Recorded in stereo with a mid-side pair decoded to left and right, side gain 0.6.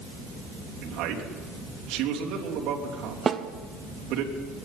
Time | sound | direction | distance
0.8 | a man speaking | 65° right | 3 m
3.3 | a snare drum | 30° right | 1.0 m